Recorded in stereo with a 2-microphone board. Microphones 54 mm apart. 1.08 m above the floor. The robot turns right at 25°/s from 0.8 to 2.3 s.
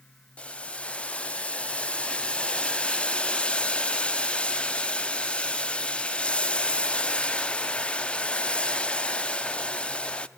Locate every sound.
0.4 s boiling: 20° left (ahead or behind), 0.5 m